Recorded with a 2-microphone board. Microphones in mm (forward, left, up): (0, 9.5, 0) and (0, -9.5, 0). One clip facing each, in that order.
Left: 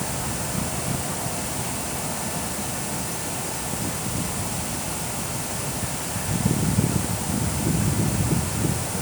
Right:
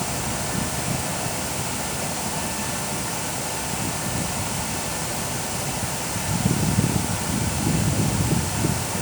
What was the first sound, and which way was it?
Only background noise.